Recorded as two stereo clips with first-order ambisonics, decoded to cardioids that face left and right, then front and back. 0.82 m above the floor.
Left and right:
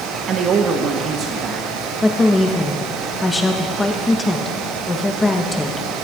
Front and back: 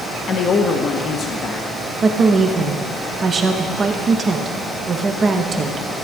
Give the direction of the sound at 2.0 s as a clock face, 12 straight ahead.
7 o'clock.